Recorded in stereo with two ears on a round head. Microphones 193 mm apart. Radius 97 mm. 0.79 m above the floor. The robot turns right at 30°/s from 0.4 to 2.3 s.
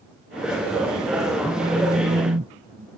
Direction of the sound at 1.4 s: 10° right (ahead or behind).